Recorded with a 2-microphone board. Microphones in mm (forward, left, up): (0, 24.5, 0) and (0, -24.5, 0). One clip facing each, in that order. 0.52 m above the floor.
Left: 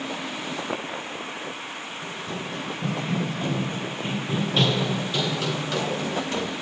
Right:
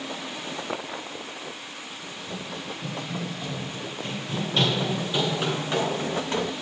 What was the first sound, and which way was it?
Running footsteps, 45° left (ahead or behind).